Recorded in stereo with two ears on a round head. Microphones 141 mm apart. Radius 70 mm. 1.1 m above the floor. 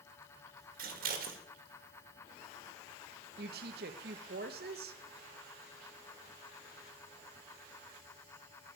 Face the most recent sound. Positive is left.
turn(degrees=-65)  # may be behind; listen again after turning